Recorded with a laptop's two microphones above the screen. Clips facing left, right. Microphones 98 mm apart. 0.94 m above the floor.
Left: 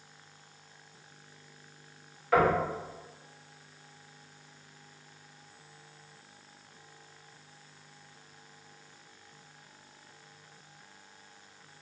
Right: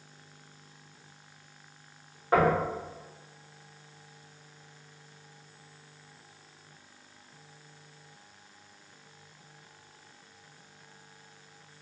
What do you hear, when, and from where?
2.3 s knocking: 35° right (ahead or behind), 0.9 m